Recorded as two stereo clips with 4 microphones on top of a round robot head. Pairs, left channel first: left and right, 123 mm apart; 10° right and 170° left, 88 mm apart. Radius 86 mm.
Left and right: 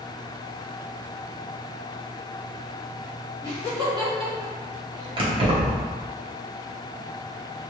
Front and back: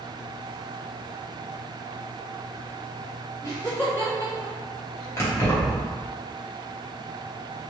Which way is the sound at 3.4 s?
45° right.